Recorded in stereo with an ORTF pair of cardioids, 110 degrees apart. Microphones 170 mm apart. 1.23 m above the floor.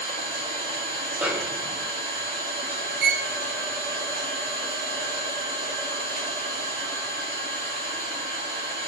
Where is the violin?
70° right, 0.6 m.